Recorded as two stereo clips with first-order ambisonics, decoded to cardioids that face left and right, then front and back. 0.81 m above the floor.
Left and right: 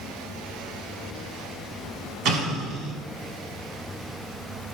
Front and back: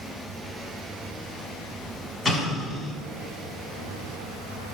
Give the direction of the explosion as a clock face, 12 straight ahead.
3 o'clock.